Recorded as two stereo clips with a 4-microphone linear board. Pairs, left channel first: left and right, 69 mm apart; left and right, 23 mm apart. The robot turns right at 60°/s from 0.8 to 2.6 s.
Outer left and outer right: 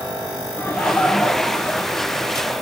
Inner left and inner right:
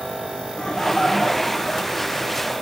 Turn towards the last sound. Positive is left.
turn(degrees=-110)